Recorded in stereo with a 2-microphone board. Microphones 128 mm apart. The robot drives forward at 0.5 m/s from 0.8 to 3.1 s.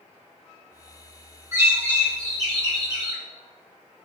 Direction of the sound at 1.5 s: 25° right (ahead or behind).